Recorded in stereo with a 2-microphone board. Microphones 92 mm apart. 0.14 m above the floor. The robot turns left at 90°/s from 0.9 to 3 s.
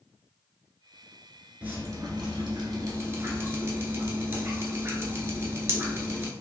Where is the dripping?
20° right, 1.2 m; by 6.3 s 145° right, 1.2 m.